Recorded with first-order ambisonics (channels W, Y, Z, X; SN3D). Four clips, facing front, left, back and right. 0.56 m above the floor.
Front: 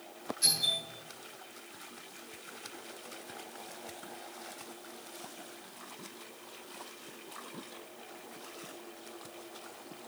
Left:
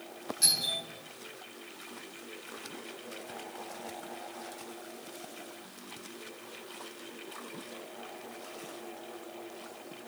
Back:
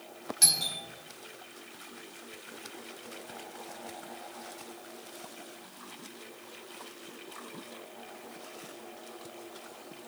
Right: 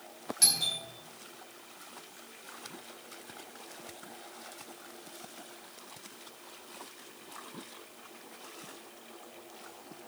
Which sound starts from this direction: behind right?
A doorbell, at 0.4 s.